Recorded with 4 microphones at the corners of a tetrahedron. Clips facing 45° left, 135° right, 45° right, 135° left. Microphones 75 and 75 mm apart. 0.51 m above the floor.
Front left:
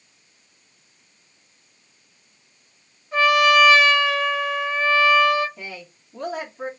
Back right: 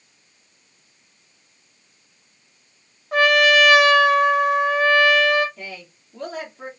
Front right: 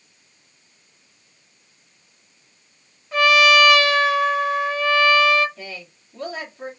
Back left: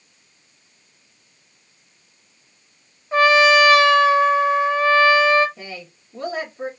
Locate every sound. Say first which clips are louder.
3.1 s a trumpet: back right 1 dB, back left 2 dB; 165° right, 0.6 m
5.6 s a woman speaking: even, back left 1 dB; 125° left, 1.3 m